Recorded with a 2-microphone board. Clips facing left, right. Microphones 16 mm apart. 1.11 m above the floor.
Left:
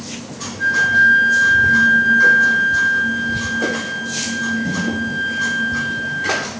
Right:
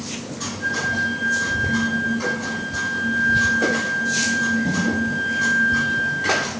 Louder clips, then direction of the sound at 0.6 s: Left 10 dB; 70° left (ahead or behind).